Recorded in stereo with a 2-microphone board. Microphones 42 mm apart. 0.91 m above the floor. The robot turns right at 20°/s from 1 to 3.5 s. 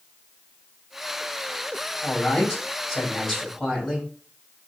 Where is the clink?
I don't hear a clink.